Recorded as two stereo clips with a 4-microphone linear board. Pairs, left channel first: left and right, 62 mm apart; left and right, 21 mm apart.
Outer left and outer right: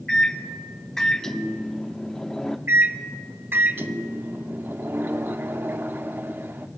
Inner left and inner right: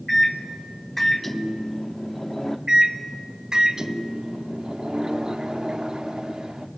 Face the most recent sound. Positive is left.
turn(degrees=-35)  # may be behind; listen again after turning